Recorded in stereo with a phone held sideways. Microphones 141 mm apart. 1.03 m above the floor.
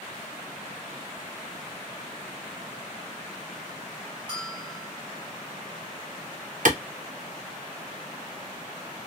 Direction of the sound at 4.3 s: 30° right (ahead or behind).